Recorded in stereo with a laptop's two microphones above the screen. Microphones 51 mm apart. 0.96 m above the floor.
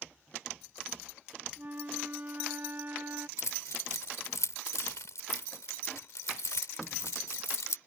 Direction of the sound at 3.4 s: 85° left.